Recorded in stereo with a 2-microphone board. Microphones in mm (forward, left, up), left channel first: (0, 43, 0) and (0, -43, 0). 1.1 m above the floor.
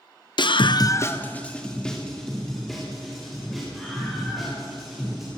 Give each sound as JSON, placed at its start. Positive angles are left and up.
{"t": 0.4, "sound": "a scream", "side_deg": 60, "distance_m": 0.6}